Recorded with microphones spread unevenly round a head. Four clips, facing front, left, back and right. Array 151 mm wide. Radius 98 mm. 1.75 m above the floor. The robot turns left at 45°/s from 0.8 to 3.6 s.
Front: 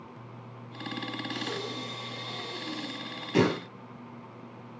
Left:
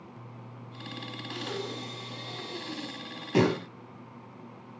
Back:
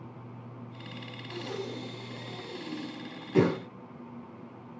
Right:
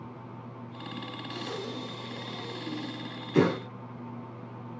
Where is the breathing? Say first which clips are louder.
Left 1 dB, back 3 dB; 160° left, 5.5 m; by 3.6 s 60° left, 5.5 m.